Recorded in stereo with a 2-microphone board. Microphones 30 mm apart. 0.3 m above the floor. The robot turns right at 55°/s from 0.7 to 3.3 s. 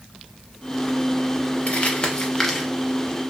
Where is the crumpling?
45° left (ahead or behind), 0.6 m; by 2.7 s centre (ahead or behind), 0.6 m.